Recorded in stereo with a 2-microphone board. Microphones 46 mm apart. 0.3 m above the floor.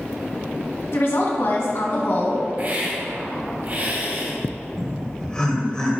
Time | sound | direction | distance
0.9 | a woman speaking | 65° left (ahead or behind) | 2 m
2.6 | a hiss | 45° right (ahead or behind) | 1.8 m
4.8 | laughter | 15° left (ahead or behind) | 1.2 m